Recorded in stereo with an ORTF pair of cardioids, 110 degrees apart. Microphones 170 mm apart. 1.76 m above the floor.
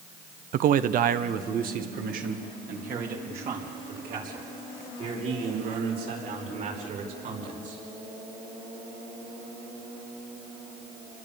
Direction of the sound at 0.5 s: 55° right.